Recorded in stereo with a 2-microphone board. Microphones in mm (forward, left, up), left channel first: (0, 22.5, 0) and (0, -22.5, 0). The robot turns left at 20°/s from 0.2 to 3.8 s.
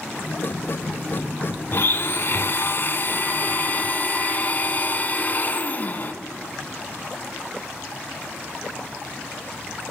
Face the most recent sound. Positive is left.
turn(degrees=50)